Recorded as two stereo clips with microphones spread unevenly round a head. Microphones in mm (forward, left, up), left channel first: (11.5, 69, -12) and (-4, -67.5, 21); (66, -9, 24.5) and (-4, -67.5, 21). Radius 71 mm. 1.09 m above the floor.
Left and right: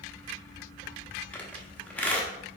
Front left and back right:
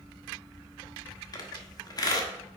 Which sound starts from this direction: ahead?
A squeak, at 1.3 s.